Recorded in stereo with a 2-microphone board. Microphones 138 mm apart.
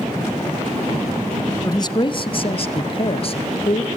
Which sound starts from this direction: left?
A man speaking, at 1.6 s.